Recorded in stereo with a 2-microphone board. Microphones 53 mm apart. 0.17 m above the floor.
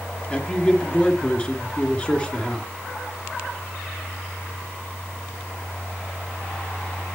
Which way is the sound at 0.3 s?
20° left (ahead or behind).